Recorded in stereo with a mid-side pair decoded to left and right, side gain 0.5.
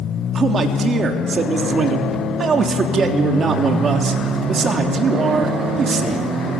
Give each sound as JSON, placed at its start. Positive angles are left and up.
{"t": 0.3, "sound": "a man speaking", "azimuth_deg": -40, "distance_m": 3.5}